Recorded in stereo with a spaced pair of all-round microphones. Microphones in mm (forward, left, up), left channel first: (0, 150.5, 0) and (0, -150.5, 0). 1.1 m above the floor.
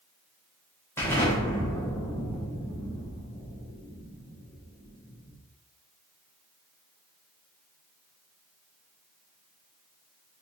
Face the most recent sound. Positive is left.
turn(degrees=10)  # may be behind; listen again after turning